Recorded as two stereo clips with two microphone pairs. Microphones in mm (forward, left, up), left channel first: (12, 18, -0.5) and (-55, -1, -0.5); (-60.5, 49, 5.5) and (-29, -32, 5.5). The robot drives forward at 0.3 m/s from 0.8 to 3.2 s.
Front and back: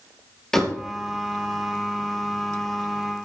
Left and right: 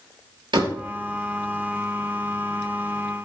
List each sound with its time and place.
0.5 s a door slam: 70° right, 3 m